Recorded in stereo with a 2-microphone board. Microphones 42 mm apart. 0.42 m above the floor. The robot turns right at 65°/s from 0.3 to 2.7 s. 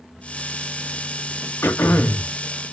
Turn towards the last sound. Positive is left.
turn(degrees=155)